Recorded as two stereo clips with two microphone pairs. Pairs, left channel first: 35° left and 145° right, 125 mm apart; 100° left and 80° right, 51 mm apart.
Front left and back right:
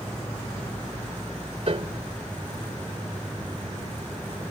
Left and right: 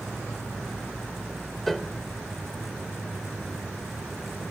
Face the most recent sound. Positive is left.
turn(degrees=-170)